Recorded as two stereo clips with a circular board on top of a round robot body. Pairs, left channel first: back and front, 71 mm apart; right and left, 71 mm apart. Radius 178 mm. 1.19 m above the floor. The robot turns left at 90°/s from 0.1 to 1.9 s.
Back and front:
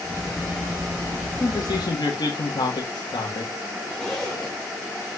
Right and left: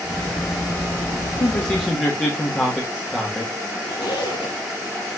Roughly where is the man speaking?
Behind right.